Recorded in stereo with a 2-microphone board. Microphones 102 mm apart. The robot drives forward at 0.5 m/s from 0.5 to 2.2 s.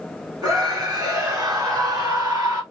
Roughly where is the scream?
Right.